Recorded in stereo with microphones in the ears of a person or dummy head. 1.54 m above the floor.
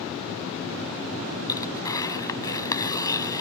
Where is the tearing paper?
20° left (ahead or behind).